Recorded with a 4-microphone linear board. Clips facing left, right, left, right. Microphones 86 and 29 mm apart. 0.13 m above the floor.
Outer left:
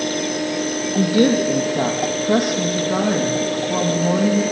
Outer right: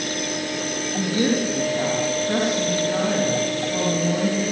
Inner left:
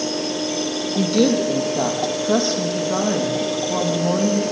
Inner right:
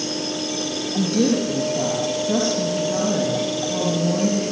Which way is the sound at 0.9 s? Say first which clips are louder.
Outer left 6 dB, inner left 2 dB; 60° left (ahead or behind).